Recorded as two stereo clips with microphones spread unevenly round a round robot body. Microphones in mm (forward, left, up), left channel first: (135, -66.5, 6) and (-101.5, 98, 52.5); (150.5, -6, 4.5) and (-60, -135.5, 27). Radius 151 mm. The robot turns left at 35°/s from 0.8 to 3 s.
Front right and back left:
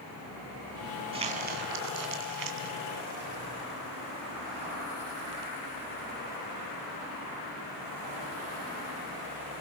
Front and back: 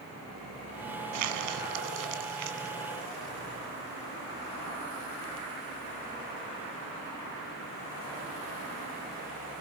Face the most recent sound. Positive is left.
turn(degrees=150)